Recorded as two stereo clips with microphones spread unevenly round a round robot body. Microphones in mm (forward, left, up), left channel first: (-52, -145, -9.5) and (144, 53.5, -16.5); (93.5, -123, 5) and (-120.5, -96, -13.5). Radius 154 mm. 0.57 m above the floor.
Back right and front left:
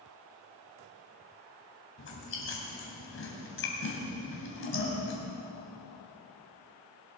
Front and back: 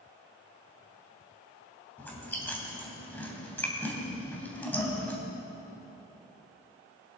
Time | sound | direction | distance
2.0 | chewing | 90° right | 3 m